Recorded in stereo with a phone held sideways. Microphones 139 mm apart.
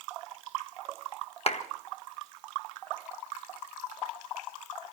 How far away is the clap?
About 1.5 m.